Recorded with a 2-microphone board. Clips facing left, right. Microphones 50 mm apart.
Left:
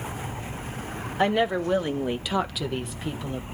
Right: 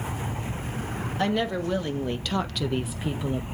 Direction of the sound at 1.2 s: 20° left (ahead or behind).